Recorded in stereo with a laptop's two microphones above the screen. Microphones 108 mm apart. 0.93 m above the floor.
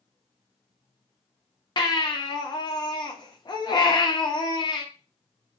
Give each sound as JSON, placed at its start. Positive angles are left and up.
{"t": 1.8, "sound": "a baby crying", "side_deg": 45, "distance_m": 0.7}